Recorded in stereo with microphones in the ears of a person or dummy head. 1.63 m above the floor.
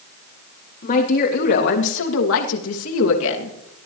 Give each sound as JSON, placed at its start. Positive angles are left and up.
{"t": 0.8, "sound": "a woman speaking", "side_deg": 45, "distance_m": 4.0}